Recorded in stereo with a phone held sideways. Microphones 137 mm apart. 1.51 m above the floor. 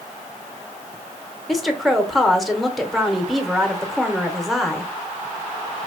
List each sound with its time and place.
1.5 s a woman speaking: centre (ahead or behind), 1.0 m